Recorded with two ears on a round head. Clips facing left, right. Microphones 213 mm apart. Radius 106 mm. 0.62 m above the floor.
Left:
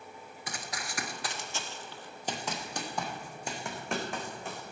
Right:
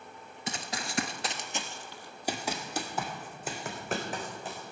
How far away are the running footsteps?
About 0.7 m.